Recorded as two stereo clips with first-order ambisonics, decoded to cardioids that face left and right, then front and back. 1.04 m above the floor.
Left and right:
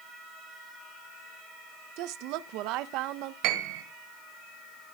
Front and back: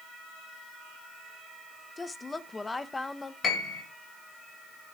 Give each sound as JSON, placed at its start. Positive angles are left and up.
{"t": 2.0, "sound": "a woman speaking", "azimuth_deg": -80, "distance_m": 0.9}
{"t": 3.4, "sound": "a piano", "azimuth_deg": -65, "distance_m": 2.0}